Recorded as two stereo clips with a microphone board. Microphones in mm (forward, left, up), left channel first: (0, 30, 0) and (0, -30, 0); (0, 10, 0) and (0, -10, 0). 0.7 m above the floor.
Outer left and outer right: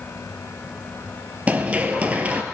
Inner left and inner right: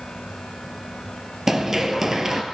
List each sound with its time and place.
1.5 s running footsteps: 25° right (ahead or behind), 0.9 m